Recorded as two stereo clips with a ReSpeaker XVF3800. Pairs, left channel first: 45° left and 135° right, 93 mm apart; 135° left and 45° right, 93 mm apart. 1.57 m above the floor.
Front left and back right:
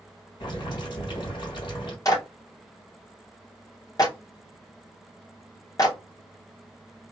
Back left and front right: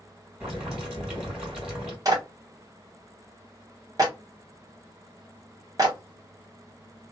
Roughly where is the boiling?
Ahead left.